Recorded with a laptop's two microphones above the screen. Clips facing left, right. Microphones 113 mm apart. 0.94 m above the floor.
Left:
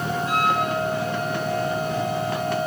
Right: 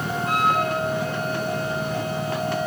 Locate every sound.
0.2 s a flute: 55° right (ahead or behind), 5.5 m